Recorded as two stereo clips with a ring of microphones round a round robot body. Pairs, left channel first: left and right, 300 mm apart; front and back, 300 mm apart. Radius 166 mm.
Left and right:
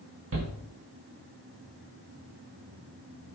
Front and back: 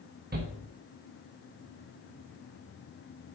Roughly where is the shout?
Behind right.